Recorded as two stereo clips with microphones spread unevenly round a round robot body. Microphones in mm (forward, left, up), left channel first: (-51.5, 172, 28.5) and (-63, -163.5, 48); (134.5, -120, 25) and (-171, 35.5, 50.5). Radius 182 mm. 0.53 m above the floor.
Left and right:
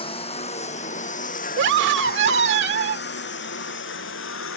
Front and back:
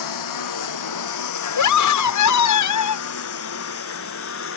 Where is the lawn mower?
10° left; by 4.6 s 30° left.